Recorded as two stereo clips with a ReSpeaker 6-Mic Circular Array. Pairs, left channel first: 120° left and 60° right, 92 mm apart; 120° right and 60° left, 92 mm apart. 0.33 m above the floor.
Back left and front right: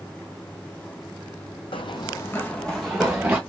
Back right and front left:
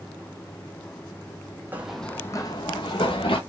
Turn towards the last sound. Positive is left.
turn(degrees=-140)